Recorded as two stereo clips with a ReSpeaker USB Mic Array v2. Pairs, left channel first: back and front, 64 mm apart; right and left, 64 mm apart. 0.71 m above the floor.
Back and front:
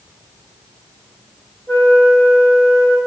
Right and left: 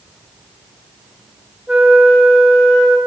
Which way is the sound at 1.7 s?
150° left.